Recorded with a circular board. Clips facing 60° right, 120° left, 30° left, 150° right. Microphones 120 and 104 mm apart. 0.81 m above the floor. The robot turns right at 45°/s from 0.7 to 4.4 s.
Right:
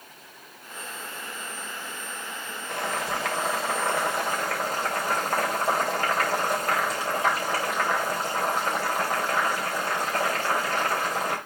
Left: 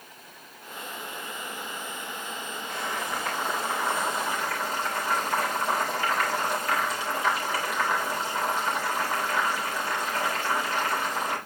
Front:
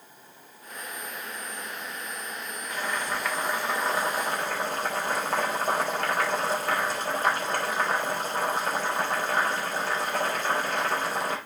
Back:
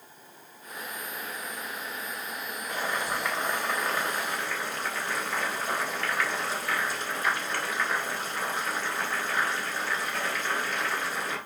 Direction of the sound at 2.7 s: 85° right.